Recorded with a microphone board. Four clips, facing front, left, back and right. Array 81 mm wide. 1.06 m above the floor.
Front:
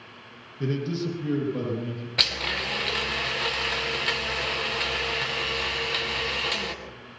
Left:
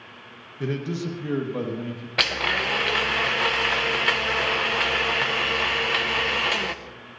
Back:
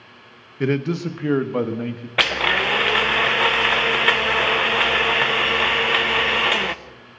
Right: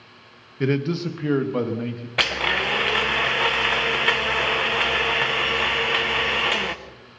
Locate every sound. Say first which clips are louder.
0.6 s a man speaking: right 5 dB, back 6 dB; 155° right, 1.2 m; by 2.1 s 160° right, 2 m
2.2 s a blender: right 2 dB, back 12 dB; 175° right, 0.7 m